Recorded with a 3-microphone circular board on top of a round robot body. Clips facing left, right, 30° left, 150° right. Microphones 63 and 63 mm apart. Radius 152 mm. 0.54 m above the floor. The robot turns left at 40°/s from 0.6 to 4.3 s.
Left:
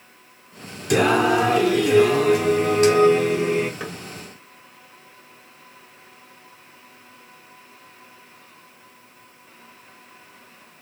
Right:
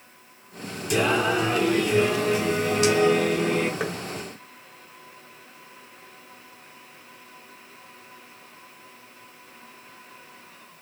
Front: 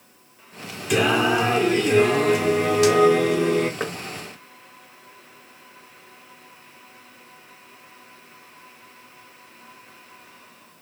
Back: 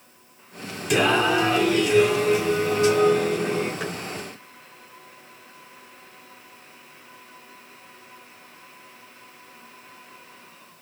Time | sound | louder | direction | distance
0.9 | singing | left 5 dB, even | 120° left | 1.0 m
3.8 | knocking | right 4 dB, front 2 dB | 25° right | 1.1 m